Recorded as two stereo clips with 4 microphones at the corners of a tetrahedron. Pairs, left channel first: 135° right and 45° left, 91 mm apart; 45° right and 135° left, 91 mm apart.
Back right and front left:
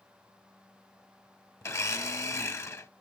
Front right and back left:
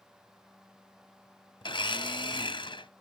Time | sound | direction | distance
1.6 | a blender | 75° right | 0.7 m